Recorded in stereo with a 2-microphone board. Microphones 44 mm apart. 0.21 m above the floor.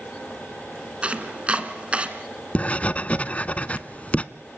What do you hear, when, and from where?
1.0 s chopping: 30° right (ahead or behind), 1.6 m
2.5 s writing: 35° left (ahead or behind), 0.6 m